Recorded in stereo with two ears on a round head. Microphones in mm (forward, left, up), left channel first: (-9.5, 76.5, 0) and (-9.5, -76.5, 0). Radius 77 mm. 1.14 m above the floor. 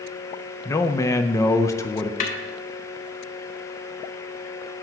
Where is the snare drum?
45° left (ahead or behind), 1.1 m.